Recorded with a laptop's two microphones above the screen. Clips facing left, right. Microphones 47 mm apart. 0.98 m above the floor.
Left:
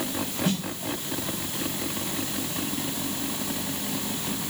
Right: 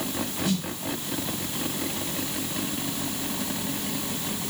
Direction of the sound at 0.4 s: 30° left (ahead or behind).